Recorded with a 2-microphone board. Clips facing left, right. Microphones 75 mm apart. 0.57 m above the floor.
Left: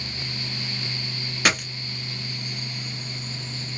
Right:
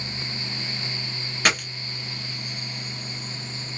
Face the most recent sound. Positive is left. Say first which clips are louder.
# even
turn(degrees=0)  # may be behind; listen again after turning